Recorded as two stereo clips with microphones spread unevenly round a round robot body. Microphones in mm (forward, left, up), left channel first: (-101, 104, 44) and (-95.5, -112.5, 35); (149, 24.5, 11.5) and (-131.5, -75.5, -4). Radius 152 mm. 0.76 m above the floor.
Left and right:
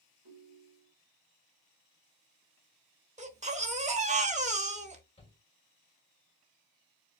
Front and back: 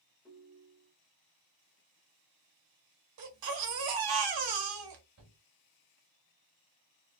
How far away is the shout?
About 3 m.